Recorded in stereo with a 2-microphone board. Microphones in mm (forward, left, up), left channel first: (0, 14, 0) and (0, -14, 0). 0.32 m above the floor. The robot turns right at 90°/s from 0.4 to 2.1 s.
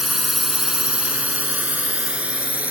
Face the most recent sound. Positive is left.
turn(degrees=-65)  # may be behind; listen again after turning